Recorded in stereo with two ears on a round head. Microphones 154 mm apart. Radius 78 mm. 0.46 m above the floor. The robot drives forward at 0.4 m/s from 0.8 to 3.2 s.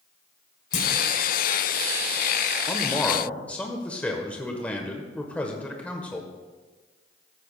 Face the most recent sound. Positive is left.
turn(degrees=10)  # may be behind; listen again after turning